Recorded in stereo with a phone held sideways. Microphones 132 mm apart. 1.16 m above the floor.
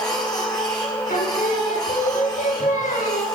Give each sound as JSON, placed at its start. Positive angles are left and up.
{"t": 0.0, "sound": "a machine running", "side_deg": 30, "distance_m": 3.5}
{"t": 1.1, "sound": "singing", "side_deg": 75, "distance_m": 1.8}